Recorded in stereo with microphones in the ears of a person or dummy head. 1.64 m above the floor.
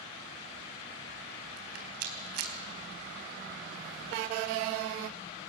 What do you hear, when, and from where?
1.6 s a rattle: 55° right (ahead or behind), 3.5 m